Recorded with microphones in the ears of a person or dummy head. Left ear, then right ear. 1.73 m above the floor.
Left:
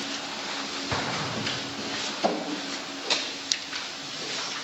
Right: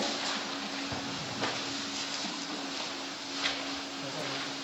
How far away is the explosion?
About 0.7 m.